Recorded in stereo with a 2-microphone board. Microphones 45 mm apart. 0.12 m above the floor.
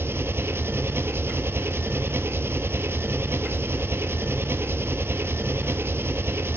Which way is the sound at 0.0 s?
65° right (ahead or behind).